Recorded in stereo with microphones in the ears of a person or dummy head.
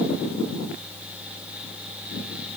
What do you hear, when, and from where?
Only background noise.